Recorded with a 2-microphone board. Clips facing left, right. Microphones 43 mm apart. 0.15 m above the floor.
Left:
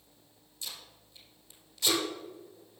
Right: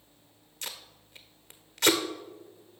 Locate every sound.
0.6 s tape being pulled: 70° right (ahead or behind), 0.8 m